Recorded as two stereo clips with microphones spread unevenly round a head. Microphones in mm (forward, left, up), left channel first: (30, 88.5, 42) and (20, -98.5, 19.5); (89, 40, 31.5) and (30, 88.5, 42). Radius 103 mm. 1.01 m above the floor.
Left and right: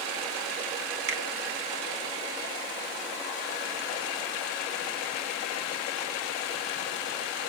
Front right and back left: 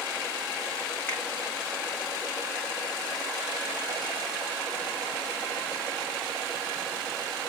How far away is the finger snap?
About 2.5 m.